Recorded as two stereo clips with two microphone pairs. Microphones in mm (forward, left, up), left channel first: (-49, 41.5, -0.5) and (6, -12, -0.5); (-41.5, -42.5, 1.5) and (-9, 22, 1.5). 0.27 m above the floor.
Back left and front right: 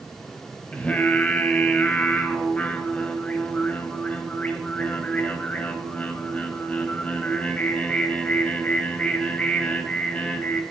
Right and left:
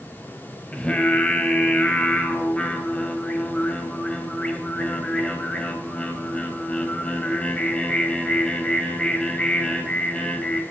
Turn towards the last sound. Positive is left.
turn(degrees=-175)